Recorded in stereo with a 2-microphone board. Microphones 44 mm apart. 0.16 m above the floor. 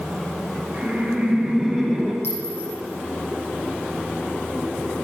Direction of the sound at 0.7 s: 30° right (ahead or behind).